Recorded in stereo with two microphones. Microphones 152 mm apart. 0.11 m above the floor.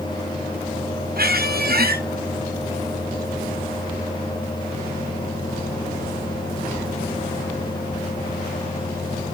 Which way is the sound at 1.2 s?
70° right (ahead or behind).